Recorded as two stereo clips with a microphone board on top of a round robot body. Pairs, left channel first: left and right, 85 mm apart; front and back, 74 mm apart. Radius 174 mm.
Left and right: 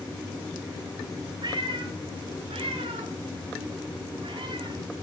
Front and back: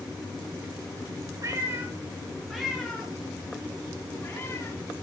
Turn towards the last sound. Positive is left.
turn(degrees=-60)